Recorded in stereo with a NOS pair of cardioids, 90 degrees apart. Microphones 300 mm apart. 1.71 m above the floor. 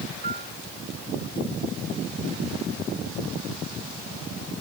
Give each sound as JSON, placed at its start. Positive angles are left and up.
{"t": 0.2, "sound": "a piano", "azimuth_deg": -30}